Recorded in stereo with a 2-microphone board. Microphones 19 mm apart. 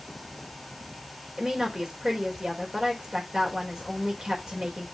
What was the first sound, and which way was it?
A woman speaking, 45° right (ahead or behind).